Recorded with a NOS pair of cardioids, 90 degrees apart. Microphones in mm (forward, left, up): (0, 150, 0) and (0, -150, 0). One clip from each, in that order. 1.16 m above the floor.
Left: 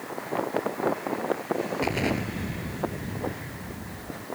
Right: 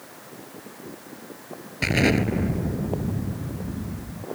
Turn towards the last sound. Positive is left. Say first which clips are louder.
# right 11 dB
turn(degrees=-55)